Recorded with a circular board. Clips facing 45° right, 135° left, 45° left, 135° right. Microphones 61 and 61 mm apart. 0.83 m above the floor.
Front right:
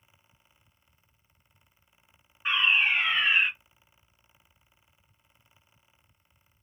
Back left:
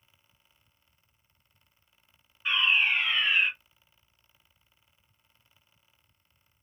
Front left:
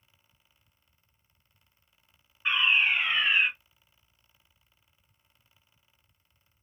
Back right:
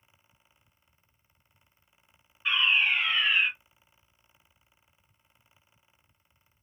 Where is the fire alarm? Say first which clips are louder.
Front right 1 dB, front left 1 dB; 15° right, 1.8 m.